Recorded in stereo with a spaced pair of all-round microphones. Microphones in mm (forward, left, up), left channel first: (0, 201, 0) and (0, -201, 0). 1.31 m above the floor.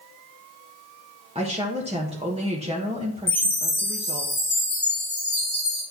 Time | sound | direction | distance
1.4 | a woman speaking | 15° right (ahead or behind) | 1.2 m
3.3 | a chime | 50° left (ahead or behind) | 5 m